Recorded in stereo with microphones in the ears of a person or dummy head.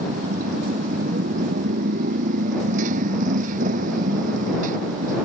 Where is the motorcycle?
40° right (ahead or behind).